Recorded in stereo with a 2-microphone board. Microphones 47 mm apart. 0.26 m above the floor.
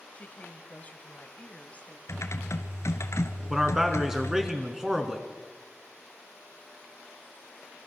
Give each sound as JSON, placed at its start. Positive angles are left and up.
{"t": 0.1, "sound": "a woman speaking", "side_deg": 30, "distance_m": 1.3}
{"t": 2.1, "sound": "typing on a keyboard", "side_deg": 80, "distance_m": 1.5}
{"t": 3.5, "sound": "a man speaking", "side_deg": -10, "distance_m": 3.5}